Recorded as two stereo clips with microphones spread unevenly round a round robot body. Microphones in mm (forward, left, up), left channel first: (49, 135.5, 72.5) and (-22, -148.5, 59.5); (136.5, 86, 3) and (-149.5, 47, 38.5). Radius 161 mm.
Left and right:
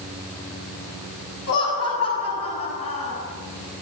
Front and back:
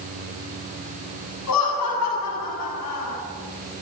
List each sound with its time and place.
1.5 s laughter: 35° left, 7.5 m